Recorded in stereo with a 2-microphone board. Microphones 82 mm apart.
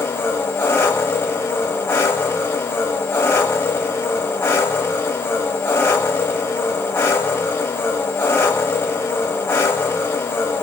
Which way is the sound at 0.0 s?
30° left (ahead or behind).